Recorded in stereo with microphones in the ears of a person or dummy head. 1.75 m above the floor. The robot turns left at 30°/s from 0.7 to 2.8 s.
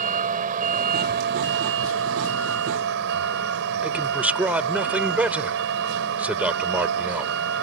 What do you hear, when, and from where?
0.0 s a vehicle: 45° right; by 7.6 s 110° right
3.8 s a man speaking: 10° right (ahead or behind)